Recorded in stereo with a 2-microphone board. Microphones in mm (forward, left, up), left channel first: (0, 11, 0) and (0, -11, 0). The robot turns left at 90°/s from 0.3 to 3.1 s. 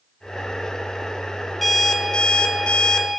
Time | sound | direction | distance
1.6 | an alarm clock | straight behind | 0.8 m